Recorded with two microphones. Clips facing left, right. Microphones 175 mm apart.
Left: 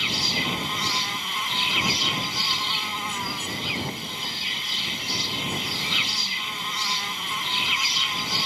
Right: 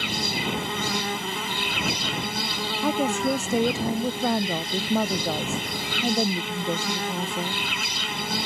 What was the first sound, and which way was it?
An insect, 55° right (ahead or behind).